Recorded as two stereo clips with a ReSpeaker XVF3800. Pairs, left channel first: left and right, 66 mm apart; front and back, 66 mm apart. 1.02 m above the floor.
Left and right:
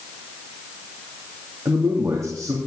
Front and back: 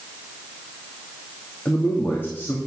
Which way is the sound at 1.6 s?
55° right.